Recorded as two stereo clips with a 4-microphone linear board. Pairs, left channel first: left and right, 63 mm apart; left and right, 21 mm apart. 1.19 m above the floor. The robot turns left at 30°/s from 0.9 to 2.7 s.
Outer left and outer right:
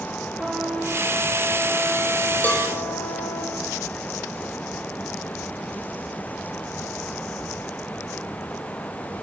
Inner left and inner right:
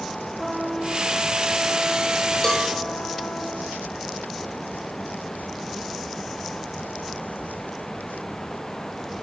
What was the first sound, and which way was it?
A trumpet, 165° right.